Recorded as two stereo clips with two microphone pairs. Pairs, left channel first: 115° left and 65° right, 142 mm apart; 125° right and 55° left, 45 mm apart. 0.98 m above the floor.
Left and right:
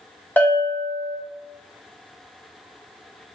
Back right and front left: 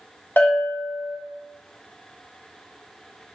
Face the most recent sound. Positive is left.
turn(degrees=-170)